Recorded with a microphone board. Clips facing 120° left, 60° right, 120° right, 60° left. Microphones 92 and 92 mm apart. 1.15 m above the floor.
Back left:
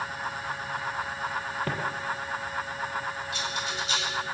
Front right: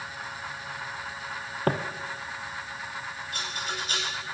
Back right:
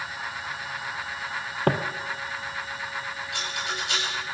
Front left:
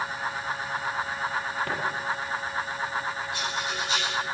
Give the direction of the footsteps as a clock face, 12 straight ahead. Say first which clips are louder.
Front right 6 dB, back right 8 dB; 3 o'clock.